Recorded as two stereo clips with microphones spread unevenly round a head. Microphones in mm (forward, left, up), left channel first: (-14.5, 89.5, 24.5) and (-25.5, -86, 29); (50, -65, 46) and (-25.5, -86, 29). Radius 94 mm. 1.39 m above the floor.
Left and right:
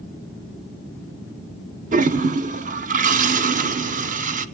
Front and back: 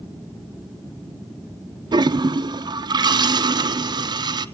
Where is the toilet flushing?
140° right, 0.6 m.